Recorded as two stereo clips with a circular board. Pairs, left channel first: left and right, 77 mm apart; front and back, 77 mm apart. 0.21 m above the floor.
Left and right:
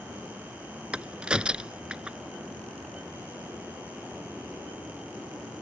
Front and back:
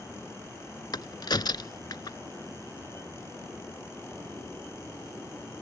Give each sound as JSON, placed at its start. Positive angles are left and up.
{"t": 0.9, "sound": "a crack", "azimuth_deg": -15}